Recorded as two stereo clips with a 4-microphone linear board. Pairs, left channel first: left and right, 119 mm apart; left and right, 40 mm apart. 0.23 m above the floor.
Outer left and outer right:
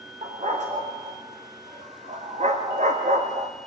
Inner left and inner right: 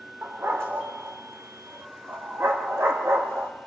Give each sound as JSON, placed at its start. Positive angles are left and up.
{"t": 0.2, "sound": "a dog barking", "side_deg": -80, "distance_m": 5.0}